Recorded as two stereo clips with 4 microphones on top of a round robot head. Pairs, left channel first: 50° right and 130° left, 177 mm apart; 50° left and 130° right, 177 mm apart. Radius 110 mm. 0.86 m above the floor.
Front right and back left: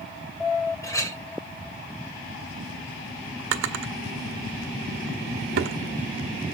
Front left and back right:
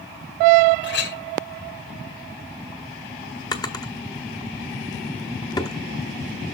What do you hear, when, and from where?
0.8 s a clink: 25° left, 2 m
3.5 s a drawer: 120° left, 1.0 m